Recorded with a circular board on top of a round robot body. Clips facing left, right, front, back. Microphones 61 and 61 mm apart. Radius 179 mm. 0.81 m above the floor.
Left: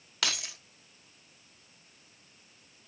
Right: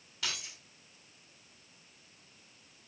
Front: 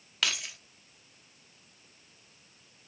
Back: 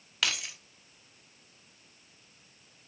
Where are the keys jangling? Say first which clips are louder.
Left 6 dB, even; 90° left, 0.8 m.